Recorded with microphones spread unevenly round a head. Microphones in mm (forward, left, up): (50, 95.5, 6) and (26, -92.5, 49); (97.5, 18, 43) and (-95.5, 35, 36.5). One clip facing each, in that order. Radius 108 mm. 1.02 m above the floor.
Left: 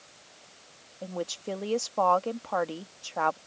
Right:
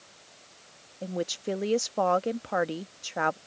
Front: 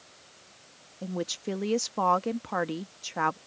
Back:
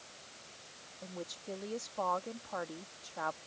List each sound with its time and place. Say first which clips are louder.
1.0 s a woman speaking: right 3 dB, front 11 dB; 25° right